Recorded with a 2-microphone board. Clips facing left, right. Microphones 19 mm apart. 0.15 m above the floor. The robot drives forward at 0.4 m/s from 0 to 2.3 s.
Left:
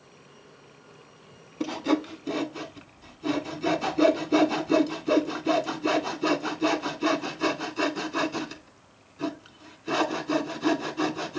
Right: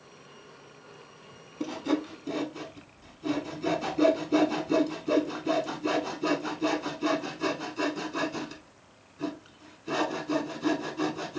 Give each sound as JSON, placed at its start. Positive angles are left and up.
{"t": 1.6, "sound": "sawing", "side_deg": 25, "distance_m": 0.6}